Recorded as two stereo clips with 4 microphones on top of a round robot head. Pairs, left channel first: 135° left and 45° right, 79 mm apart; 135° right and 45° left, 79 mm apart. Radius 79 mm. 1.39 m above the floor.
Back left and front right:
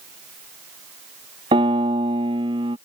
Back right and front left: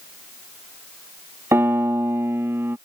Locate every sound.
1.5 s a piano: 20° right